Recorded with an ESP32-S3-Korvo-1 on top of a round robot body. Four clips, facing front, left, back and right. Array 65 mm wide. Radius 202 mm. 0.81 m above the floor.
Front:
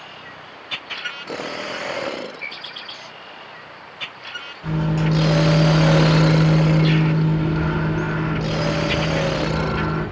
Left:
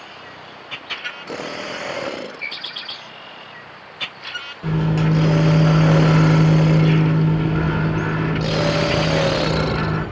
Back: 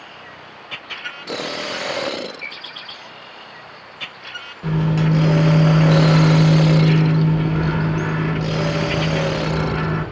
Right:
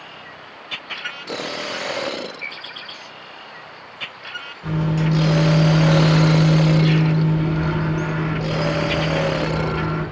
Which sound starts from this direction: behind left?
A microwave, at 4.6 s.